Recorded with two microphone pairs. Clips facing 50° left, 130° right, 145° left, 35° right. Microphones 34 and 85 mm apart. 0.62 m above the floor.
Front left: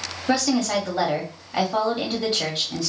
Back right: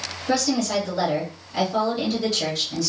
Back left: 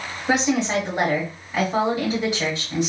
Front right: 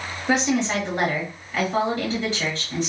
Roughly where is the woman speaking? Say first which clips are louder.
Front left 1 dB, back left 1 dB; left.